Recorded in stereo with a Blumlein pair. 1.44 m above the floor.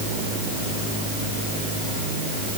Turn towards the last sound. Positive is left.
No sound to turn to.